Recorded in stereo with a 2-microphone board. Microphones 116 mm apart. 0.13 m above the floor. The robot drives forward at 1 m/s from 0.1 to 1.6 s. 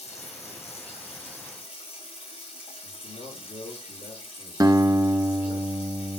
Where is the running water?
65° left (ahead or behind), 4 m; by 6.2 s 50° left (ahead or behind), 5 m.